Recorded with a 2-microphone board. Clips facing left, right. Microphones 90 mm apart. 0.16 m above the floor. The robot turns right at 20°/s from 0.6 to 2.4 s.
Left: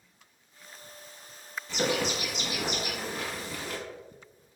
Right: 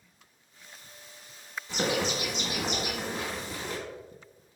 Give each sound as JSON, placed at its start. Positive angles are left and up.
{"t": 1.7, "sound": "a bird", "side_deg": -20, "distance_m": 0.7}